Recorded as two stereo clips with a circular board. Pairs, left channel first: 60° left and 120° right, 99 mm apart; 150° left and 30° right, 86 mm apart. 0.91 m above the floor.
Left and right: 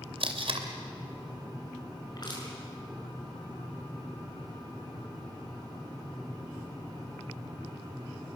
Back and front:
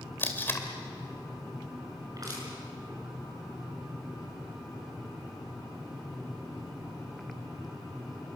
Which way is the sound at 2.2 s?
15° left.